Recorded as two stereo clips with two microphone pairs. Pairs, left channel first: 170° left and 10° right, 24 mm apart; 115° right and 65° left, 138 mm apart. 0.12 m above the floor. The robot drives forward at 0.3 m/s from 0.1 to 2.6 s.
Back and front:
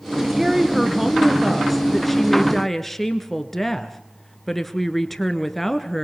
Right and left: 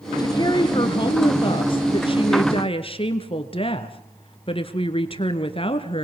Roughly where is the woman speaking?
Right.